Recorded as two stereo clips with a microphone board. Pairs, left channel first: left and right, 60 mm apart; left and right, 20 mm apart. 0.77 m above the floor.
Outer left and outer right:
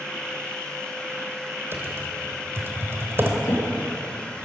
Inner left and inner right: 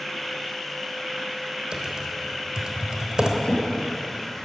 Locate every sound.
1.7 s typing on a keyboard: 40° right (ahead or behind), 3.5 m
3.4 s a drawer: 85° left, 7.5 m